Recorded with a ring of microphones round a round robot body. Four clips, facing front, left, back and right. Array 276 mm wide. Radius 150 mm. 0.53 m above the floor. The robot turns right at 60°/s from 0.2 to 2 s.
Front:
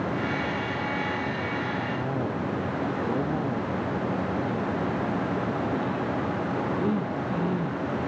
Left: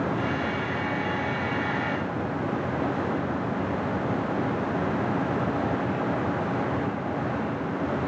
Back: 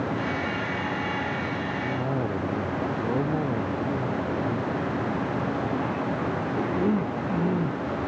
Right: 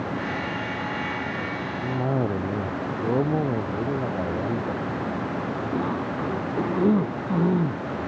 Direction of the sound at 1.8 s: 110° right.